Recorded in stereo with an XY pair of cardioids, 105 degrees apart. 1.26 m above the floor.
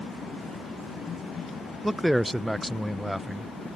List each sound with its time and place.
1.8 s a man speaking: 5° right